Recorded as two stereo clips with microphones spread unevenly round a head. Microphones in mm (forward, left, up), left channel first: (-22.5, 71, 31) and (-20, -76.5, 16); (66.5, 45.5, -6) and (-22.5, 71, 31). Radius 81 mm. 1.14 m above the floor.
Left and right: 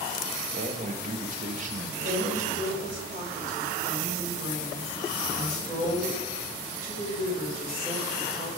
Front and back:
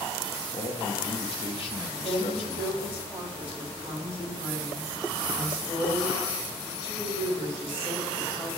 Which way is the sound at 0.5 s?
45° right.